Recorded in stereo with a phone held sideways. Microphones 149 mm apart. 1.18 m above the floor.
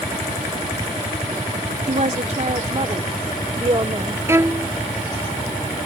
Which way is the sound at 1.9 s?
60° right (ahead or behind).